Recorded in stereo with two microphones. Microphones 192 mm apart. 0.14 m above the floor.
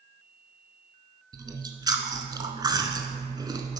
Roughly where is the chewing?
Right.